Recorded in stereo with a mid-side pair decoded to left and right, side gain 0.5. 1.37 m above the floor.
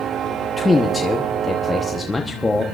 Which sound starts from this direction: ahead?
A man speaking, at 0.6 s.